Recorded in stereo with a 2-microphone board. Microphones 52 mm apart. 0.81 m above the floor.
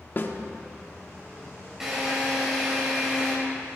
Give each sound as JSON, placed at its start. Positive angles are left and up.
{"t": 0.2, "sound": "a snare drum", "side_deg": 45, "distance_m": 1.4}
{"t": 1.8, "sound": "a drill", "side_deg": -10, "distance_m": 5.0}